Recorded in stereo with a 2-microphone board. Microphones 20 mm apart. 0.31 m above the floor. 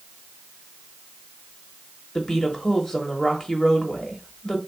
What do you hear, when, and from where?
2.1 s a woman speaking: 30° left (ahead or behind), 1.1 m